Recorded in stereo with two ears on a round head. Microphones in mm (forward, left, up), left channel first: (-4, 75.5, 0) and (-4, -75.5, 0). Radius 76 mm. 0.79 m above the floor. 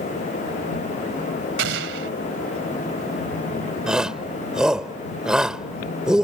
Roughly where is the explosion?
Right.